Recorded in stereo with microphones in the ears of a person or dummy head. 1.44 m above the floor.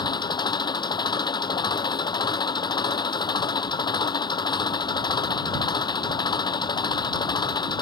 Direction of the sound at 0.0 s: 20° left (ahead or behind).